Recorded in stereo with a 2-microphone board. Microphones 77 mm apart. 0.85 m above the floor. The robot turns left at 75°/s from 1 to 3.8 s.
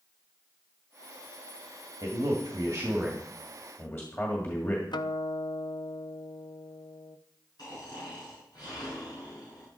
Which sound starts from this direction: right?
A man speaking, at 2.0 s.